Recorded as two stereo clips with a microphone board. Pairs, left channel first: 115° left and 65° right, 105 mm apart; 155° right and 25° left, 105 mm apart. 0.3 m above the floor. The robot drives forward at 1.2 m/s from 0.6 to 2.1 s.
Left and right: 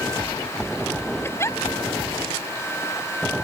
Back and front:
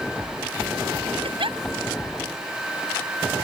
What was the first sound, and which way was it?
A giggle, 45° left.